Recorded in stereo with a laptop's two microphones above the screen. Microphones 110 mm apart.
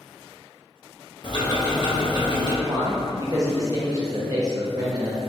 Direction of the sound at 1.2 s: 40° left (ahead or behind).